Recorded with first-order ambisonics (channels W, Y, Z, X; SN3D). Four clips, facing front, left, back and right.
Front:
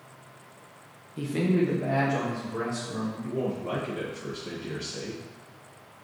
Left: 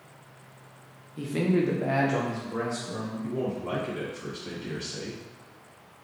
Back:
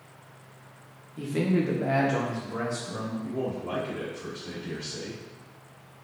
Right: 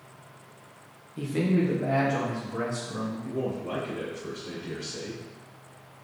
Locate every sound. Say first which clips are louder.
1.2 s a man speaking: even, front 1 dB; 25° right, 0.5 m; by 3.1 s 135° left, 1.7 m
3.2 s a man speaking: left 4 dB, front 2 dB; 70° left, 2 m